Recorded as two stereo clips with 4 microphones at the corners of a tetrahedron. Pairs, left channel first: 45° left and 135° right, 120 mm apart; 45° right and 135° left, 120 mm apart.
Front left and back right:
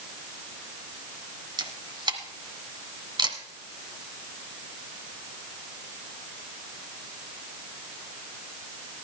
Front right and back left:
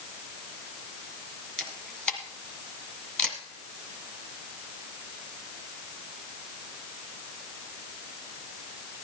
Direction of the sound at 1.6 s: 125° right.